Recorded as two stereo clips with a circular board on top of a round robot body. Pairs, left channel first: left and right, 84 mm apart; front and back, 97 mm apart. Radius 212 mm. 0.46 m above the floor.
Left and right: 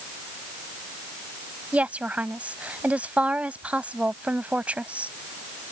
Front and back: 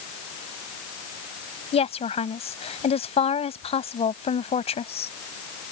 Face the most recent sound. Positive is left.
turn(degrees=-15)